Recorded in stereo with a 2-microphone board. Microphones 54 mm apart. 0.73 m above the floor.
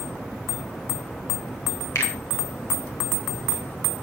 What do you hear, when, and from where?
1.9 s a finger snap: 65° left (ahead or behind), 4 m